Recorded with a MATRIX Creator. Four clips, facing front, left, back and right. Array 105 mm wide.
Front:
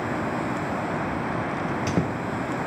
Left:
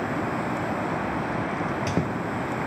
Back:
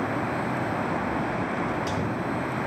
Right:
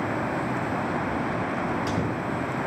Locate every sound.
1.6 s a squeak: 40° left, 1.4 m